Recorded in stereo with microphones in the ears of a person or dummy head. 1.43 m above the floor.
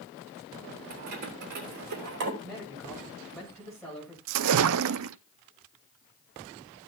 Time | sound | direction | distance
0.9 | keys jangling | 45° right (ahead or behind) | 3.5 m
2.4 | a man speaking | 5° left (ahead or behind) | 8.5 m
4.3 | a splash | 70° right (ahead or behind) | 0.6 m